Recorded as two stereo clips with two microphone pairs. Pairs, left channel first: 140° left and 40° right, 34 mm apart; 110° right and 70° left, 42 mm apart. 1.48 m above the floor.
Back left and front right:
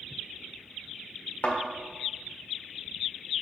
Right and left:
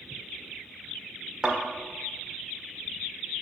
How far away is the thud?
About 1.8 m.